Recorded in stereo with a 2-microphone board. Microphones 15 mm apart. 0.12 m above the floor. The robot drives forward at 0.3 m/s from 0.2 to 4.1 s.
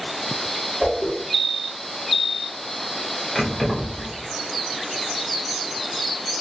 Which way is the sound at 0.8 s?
25° right (ahead or behind).